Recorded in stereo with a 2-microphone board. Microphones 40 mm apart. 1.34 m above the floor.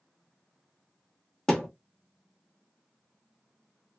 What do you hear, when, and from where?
1.5 s a thud: 10° left (ahead or behind), 0.9 m